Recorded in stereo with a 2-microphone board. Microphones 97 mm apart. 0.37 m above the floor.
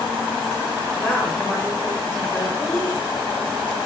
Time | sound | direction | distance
1.0 | a woman speaking | 15° left (ahead or behind) | 1.6 m